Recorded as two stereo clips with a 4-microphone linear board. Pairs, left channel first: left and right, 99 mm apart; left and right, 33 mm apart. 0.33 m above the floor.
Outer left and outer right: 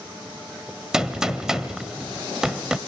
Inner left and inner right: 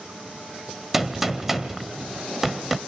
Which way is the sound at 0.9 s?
5° right (ahead or behind).